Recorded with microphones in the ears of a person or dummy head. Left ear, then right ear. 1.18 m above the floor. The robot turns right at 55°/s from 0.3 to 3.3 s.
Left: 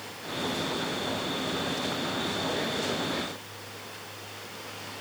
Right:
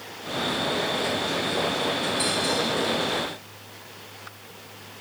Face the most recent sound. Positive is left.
No sound to turn to.